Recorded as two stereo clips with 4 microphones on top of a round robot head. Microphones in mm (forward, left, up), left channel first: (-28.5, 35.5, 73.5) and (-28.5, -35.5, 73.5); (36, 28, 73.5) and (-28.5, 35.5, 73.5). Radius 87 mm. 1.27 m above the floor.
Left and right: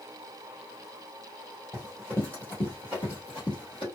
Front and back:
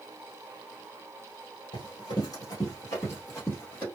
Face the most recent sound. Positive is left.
turn(degrees=55)